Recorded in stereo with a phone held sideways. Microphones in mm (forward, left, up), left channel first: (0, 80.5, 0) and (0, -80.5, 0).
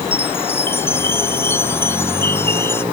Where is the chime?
15° left (ahead or behind).